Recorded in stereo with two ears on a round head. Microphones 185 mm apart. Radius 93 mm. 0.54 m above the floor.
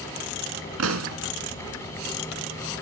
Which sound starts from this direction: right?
A pop, at 0.8 s.